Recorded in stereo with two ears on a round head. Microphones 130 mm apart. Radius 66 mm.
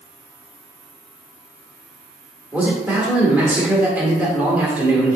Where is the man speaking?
10° right (ahead or behind), 0.9 m.